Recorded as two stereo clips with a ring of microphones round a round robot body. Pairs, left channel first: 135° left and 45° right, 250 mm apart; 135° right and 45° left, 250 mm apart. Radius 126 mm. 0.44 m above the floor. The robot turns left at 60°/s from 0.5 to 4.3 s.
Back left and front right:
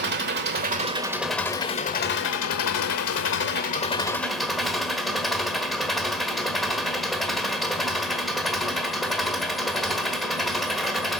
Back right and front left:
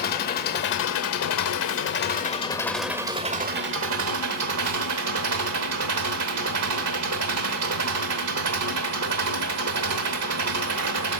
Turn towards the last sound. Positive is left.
turn(degrees=45)